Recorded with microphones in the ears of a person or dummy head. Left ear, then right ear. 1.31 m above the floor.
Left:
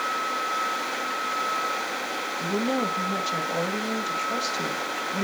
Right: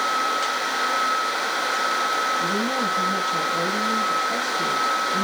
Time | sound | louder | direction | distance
2.4 | a woman speaking | right 3 dB | 60° left (ahead or behind) | 2.5 m